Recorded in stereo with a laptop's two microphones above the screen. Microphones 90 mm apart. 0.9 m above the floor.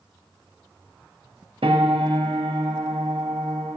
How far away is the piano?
About 1.0 m.